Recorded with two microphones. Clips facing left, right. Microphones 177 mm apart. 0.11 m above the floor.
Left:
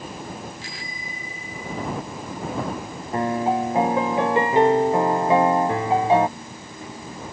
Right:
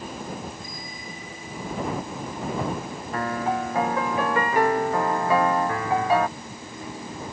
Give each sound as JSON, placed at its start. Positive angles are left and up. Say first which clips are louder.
{"t": 0.6, "sound": "a bicycle bell", "louder": "even", "side_deg": 80}
{"t": 3.1, "sound": "a piano", "louder": "left 5 dB", "side_deg": 20}